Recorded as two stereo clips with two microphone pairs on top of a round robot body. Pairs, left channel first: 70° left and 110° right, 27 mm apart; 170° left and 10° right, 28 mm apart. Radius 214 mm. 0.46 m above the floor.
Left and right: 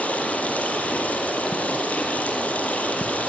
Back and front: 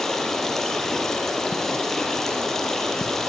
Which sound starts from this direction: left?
Running water, at 0.0 s.